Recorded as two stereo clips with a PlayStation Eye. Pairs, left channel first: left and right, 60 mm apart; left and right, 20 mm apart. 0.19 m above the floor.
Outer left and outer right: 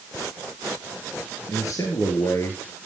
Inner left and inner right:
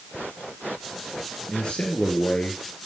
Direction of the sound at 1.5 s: 60° left (ahead or behind).